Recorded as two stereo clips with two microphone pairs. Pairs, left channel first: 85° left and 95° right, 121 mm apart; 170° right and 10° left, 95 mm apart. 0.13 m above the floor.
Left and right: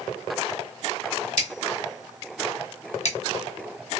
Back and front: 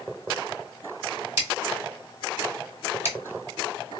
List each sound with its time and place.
1.4 s scissors: 75° left, 1.3 m